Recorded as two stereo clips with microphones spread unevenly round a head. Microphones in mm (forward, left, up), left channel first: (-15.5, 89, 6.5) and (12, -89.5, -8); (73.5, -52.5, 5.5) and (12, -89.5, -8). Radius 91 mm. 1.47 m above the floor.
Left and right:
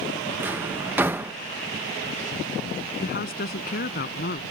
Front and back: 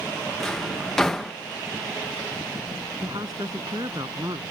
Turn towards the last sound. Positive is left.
turn(degrees=140)